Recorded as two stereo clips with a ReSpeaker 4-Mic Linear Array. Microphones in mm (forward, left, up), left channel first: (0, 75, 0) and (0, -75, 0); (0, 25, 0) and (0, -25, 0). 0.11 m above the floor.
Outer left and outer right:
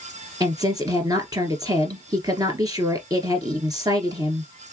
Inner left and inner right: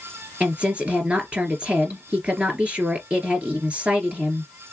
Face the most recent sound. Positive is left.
turn(degrees=-25)  # may be behind; listen again after turning